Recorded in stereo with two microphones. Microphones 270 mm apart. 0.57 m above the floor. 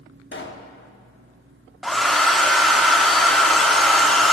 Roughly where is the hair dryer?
Centre.